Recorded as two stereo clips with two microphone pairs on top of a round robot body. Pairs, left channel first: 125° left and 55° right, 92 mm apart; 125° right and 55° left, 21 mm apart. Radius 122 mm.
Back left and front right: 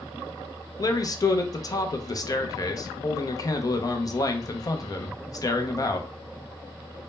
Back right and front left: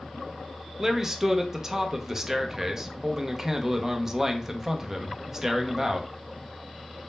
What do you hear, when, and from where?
0.8 s a man speaking: 110° left, 0.6 m